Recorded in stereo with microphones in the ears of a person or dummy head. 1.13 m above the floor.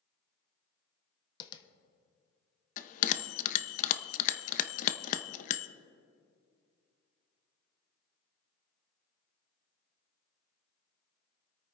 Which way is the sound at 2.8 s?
45° left (ahead or behind).